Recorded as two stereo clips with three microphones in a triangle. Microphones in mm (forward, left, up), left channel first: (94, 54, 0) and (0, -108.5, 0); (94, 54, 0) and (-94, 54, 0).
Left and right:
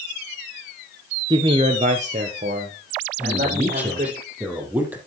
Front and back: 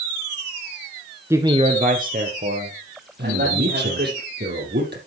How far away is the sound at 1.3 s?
About 1.2 m.